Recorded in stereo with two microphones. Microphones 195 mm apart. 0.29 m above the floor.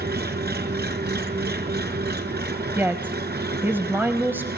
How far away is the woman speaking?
About 1.3 m.